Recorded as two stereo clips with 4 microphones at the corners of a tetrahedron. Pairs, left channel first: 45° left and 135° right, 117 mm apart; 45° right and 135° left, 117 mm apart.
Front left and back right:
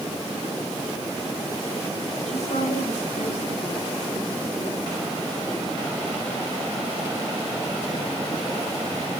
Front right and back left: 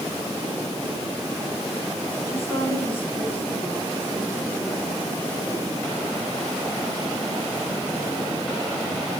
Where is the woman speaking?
20° left, 8.5 m; by 5.0 s 40° left, 9.5 m.